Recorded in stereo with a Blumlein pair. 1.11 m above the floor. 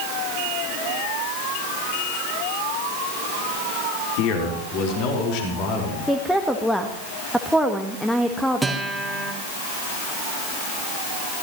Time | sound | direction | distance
4.2 | a man speaking | 40° left | 3.5 m
6.1 | a woman speaking | 5° left | 1.4 m
8.6 | a guitar | 5° right | 2.5 m